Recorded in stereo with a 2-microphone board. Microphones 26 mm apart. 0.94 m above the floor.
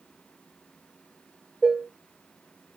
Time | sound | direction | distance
1.6 | dishes clattering | 20° left (ahead or behind) | 2 m